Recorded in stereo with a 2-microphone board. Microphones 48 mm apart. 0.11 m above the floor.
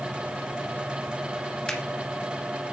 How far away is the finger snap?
About 1.5 m.